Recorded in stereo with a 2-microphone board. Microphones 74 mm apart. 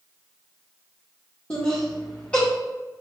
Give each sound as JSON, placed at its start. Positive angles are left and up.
{"t": 1.5, "sound": "laughter", "side_deg": 20, "distance_m": 1.0}